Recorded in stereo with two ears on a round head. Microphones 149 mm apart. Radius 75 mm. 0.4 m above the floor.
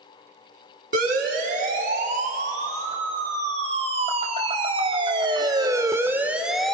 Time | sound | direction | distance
0.9 | a siren | 50° right (ahead or behind) | 5 m